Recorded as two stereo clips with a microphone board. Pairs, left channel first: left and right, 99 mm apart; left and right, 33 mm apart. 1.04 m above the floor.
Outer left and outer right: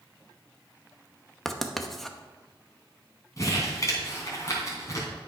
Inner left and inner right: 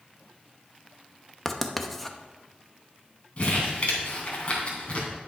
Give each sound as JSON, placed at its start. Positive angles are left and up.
{"t": 1.4, "sound": "writing", "side_deg": 5, "distance_m": 0.8}
{"t": 3.4, "sound": "crumpling", "side_deg": 35, "distance_m": 3.0}